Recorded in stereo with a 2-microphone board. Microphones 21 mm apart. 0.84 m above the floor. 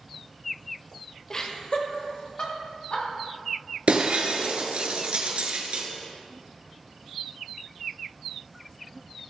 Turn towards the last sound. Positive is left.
turn(degrees=-65)  # may be behind; listen again after turning